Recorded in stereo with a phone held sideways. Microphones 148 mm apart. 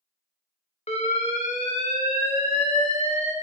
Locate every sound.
0.9 s an alarm: 45° left (ahead or behind), 0.5 m